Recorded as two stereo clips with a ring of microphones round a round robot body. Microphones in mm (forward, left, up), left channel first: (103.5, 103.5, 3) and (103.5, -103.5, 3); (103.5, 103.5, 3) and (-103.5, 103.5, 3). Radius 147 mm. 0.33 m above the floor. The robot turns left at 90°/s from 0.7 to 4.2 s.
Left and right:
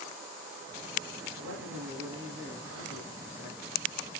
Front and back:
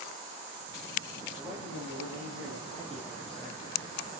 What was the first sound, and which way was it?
A man speaking, 100° right.